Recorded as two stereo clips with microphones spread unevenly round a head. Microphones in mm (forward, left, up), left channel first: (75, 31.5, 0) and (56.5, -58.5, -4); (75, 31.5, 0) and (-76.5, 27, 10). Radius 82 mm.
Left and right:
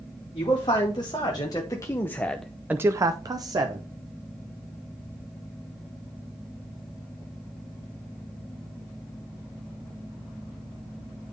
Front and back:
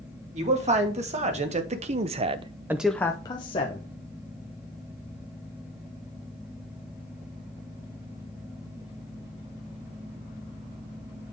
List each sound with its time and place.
0.3 s a man speaking: 140° left, 2 m; by 3.8 s 55° right, 1.0 m